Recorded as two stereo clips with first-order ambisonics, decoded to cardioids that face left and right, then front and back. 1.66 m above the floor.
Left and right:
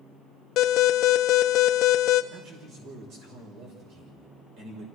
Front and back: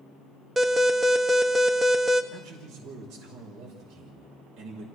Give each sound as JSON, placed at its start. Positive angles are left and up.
{"t": 0.6, "sound": "an alarm", "azimuth_deg": 105, "distance_m": 1.2}
{"t": 2.3, "sound": "a man speaking", "azimuth_deg": -130, "distance_m": 6.0}